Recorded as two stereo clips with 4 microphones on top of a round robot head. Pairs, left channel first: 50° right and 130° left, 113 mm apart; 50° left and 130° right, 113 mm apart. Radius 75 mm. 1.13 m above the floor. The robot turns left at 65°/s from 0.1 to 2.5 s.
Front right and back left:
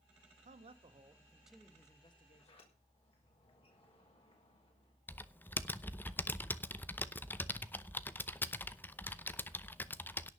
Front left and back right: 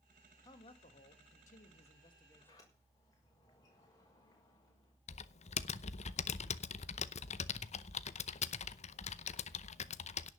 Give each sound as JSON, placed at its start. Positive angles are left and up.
{"t": 0.5, "sound": "a man speaking", "azimuth_deg": 110, "distance_m": 1.4}
{"t": 2.4, "sound": "a sliding door", "azimuth_deg": 0, "distance_m": 6.0}
{"t": 5.1, "sound": "typing on a keyboard", "azimuth_deg": 25, "distance_m": 0.8}